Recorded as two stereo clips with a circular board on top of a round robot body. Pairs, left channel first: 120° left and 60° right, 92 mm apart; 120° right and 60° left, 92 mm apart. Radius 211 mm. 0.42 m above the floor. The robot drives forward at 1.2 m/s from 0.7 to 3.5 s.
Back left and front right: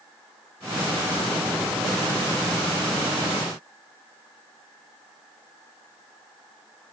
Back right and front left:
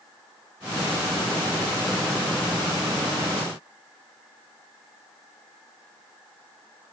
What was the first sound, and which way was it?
Only background noise.